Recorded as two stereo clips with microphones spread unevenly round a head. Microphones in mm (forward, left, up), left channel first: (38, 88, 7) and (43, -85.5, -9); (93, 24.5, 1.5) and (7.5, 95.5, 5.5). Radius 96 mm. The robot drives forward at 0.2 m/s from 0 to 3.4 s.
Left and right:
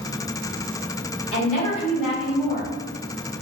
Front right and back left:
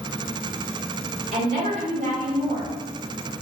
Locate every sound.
1.3 s a woman speaking: 155° left, 1.6 m